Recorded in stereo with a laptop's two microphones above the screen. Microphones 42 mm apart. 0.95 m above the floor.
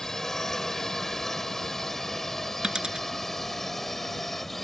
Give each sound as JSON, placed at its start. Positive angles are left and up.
{"t": 0.0, "sound": "a drone", "side_deg": 10}
{"t": 2.6, "sound": "a dropped coin", "side_deg": -15}